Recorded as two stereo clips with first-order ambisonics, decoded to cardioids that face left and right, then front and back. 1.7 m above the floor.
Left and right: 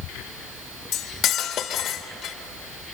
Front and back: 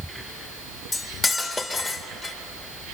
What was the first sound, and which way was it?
Cutlery clinking, 55° left.